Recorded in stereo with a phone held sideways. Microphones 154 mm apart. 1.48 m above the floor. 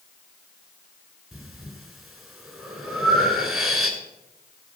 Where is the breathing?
Centre (ahead or behind), 3 m.